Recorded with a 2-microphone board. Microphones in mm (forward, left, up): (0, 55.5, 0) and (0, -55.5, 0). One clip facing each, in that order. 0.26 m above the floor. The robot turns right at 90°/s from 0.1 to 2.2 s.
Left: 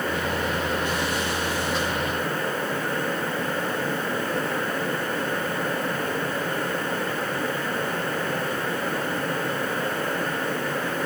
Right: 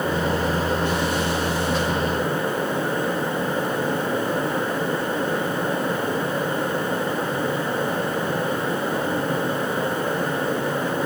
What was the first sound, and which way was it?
Only background noise.